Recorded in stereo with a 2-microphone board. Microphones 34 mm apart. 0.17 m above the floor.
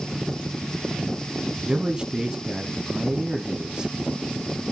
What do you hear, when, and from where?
1.6 s a man speaking: 25° right (ahead or behind), 1.1 m